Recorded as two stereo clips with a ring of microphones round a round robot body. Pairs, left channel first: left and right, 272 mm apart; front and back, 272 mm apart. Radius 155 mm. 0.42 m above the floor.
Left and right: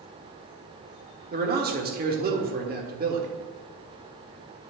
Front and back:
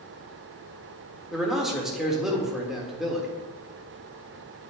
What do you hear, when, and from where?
1.3 s a man speaking: 90° right, 1.4 m